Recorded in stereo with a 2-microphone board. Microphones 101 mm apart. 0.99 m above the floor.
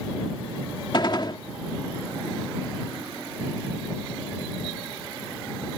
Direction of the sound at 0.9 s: 50° left (ahead or behind).